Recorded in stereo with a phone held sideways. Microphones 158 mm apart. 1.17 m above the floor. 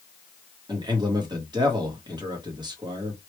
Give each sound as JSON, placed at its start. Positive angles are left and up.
{"t": 0.7, "sound": "a man speaking", "side_deg": -25, "distance_m": 1.2}